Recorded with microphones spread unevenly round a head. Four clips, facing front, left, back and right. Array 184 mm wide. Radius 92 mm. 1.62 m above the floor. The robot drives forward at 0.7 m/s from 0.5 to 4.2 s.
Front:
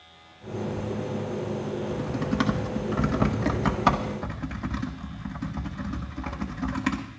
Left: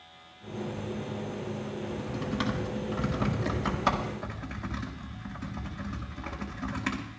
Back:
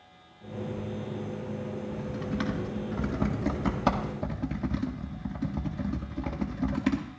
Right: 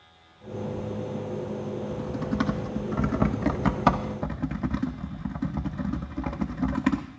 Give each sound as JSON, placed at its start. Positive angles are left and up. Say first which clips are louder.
{"t": 1.8, "sound": "typing on a keyboard", "louder": "right 3 dB, front 5 dB", "azimuth_deg": -25, "distance_m": 2.0}